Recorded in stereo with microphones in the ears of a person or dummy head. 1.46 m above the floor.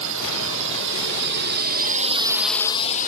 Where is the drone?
75° right (ahead or behind); by 3.1 s 50° left (ahead or behind).